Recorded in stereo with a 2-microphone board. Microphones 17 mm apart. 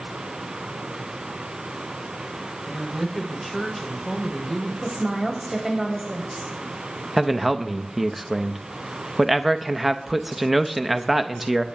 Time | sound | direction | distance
2.6 | a woman speaking | 5° left (ahead or behind) | 4.5 m
4.8 | a woman speaking | 20° right (ahead or behind) | 5 m
7.2 | a man speaking | 5° right (ahead or behind) | 0.9 m